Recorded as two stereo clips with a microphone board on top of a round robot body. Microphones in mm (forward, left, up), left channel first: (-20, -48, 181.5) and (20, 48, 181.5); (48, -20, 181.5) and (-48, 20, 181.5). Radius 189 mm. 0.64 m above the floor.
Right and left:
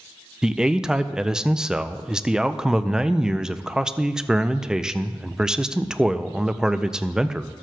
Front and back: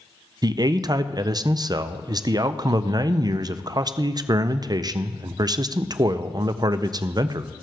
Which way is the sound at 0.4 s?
150° left.